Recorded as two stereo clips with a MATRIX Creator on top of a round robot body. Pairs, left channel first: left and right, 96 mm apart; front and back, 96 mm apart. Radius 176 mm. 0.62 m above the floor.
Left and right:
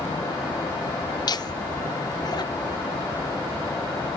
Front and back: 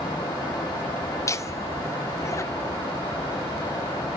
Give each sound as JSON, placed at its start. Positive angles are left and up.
{"t": 1.3, "sound": "laughter", "azimuth_deg": 55, "distance_m": 1.5}